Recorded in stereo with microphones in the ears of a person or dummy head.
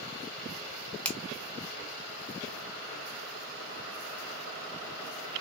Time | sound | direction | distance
1.1 | a finger snap | 10° left (ahead or behind) | 1.0 m